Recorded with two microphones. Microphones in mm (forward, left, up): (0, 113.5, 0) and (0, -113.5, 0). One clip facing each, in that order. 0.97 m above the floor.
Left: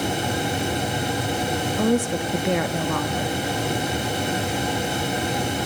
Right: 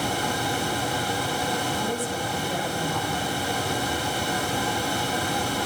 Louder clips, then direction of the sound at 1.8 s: Left 8 dB; 70° left (ahead or behind).